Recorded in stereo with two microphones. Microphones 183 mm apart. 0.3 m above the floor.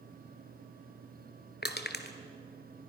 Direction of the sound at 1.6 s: 65° left (ahead or behind).